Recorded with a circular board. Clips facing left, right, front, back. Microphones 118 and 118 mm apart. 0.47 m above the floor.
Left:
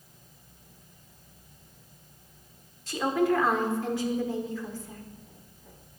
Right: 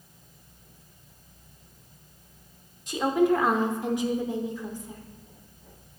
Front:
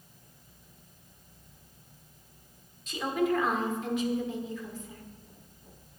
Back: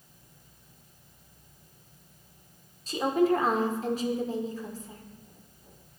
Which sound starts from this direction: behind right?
A woman speaking, at 2.9 s.